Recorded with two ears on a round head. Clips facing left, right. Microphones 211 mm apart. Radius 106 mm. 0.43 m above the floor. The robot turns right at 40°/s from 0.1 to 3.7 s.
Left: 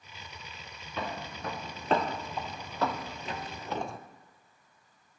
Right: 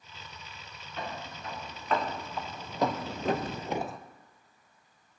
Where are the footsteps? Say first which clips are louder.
Left 2 dB; 70° left (ahead or behind), 3 m; by 4.0 s 5° left (ahead or behind), 0.7 m.